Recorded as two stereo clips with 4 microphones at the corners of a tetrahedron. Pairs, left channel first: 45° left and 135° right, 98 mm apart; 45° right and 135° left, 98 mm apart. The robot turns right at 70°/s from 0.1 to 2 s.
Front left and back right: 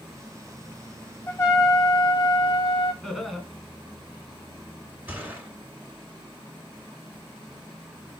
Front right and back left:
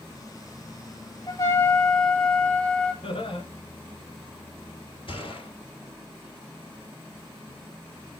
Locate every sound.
1.3 s a trumpet: 15° right, 1.3 m; by 2.9 s 35° left, 1.3 m
3.0 s laughter: 45° right, 2.5 m
5.1 s a gunshot: 65° right, 3 m